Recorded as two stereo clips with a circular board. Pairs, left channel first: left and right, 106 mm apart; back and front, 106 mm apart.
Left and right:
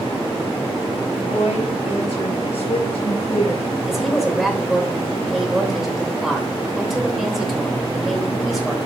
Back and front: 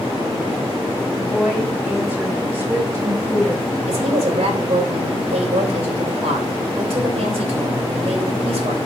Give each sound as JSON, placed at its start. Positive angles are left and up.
{"t": 1.1, "sound": "a woman speaking", "azimuth_deg": 80, "distance_m": 5.5}
{"t": 3.9, "sound": "a woman speaking", "azimuth_deg": 0, "distance_m": 3.0}